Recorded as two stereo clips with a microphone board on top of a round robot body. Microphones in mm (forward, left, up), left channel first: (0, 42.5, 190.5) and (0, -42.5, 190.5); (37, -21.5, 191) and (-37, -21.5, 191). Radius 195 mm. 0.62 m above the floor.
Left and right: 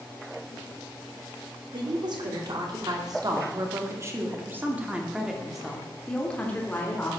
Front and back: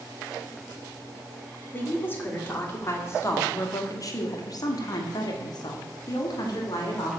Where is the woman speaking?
65° right, 3 m; by 7.2 s 30° left, 2.5 m.